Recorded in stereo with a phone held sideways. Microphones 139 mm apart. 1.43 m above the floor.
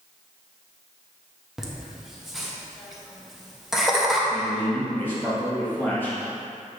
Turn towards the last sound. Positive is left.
turn(degrees=15)  # may be behind; listen again after turning